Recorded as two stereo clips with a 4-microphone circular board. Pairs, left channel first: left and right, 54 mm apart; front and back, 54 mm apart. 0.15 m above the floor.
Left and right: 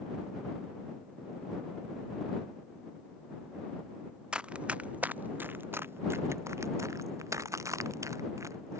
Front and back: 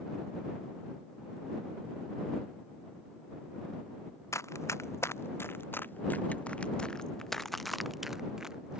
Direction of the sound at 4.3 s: 20° right.